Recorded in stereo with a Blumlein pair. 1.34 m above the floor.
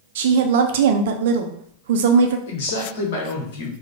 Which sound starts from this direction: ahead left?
A man speaking, at 2.5 s.